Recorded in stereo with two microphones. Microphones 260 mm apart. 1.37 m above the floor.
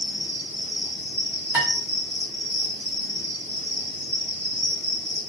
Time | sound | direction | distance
0.0 | an insect | 10° right (ahead or behind) | 1.7 m
1.5 | dishes clattering | 5° right (ahead or behind) | 1.5 m